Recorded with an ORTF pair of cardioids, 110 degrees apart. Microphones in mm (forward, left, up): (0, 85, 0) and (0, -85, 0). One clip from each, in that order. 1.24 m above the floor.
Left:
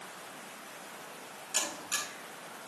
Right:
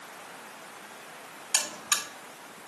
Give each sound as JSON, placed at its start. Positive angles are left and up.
{"t": 1.5, "sound": "a buzzer", "azimuth_deg": -65, "distance_m": 5.0}